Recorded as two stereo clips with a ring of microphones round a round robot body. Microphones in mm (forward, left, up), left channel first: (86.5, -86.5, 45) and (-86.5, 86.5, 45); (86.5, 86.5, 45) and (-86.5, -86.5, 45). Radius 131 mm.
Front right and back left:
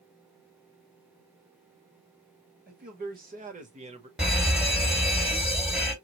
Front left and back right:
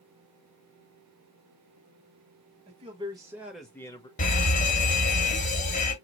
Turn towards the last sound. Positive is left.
turn(degrees=50)